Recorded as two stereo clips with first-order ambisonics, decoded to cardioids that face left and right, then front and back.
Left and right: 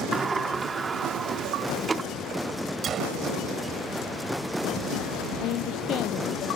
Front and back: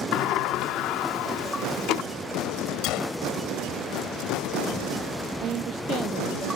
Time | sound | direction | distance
0.1 | a sliding door | 20° right | ?
2.8 | a gunshot | 30° right | ?
5.4 | a woman speaking | 130° left | ?